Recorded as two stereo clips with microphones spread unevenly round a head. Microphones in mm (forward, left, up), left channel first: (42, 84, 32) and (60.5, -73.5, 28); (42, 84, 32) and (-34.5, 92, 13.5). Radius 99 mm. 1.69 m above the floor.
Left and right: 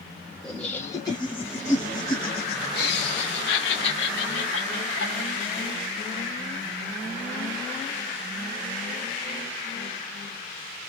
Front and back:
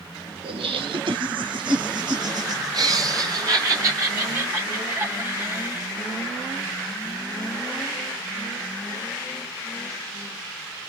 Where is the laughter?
175° right, 1.3 m; by 5.9 s 115° left, 3.5 m.